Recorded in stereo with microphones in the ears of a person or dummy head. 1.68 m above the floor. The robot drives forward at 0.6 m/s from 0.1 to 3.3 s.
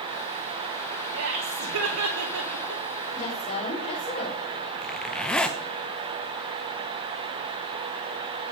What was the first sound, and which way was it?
Laughter, 65° right (ahead or behind).